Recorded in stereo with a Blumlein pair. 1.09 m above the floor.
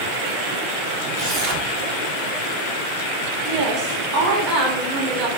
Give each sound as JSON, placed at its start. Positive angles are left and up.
{"t": 1.1, "sound": "tearing paper", "azimuth_deg": -40, "distance_m": 0.7}
{"t": 3.5, "sound": "a woman speaking", "azimuth_deg": -35, "distance_m": 1.0}